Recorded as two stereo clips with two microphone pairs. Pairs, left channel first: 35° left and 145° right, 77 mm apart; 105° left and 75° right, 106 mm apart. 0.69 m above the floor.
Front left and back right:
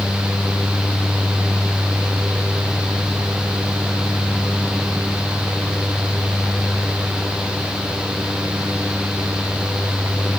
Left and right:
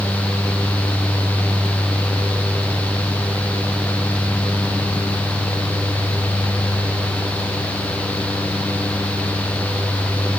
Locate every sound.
Only background noise.